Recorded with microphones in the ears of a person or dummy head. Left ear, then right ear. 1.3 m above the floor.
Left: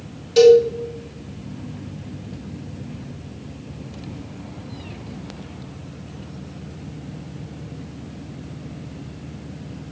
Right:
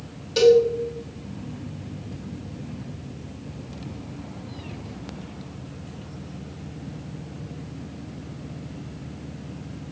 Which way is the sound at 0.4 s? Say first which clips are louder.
Left 5 dB; centre (ahead or behind).